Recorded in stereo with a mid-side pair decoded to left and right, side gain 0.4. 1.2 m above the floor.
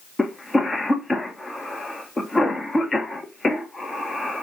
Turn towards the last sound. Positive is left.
turn(degrees=20)